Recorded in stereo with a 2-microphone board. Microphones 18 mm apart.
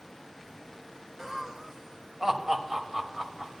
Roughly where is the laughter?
Right.